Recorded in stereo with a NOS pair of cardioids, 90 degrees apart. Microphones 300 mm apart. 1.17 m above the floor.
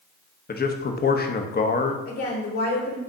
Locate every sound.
0.5 s a man speaking: 30° left, 1.1 m
2.0 s a woman speaking: 55° left, 2 m